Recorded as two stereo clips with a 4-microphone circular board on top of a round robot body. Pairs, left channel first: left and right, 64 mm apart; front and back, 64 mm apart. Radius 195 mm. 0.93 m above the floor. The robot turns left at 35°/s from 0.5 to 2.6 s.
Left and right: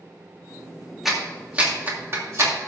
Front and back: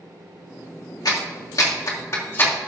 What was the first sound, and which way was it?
A clap, 5° right.